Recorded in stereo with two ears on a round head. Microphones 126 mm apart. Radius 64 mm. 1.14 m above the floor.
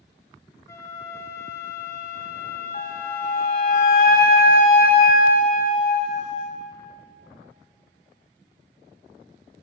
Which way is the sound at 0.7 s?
20° left (ahead or behind).